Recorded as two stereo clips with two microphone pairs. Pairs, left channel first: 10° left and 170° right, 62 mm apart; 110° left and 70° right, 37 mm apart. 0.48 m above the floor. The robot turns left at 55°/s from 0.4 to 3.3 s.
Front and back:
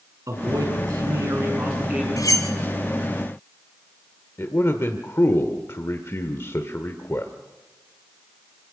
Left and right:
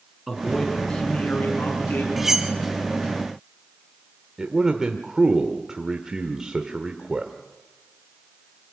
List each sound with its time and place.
0.3 s a man speaking: 150° right, 6.5 m; by 2.1 s 115° left, 6.5 m
2.2 s cutlery clinking: 20° left, 1.9 m; by 2.5 s straight ahead, 1.9 m
4.4 s a man speaking: straight ahead, 1.4 m